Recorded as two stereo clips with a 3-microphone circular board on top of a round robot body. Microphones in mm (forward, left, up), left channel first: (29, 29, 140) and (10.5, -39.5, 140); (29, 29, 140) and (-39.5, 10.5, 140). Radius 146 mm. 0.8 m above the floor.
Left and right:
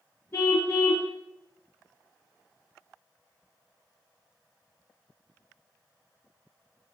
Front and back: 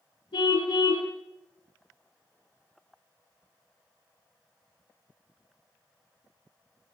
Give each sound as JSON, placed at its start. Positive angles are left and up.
{"t": 0.3, "sound": "a car horn", "azimuth_deg": 20, "distance_m": 9.0}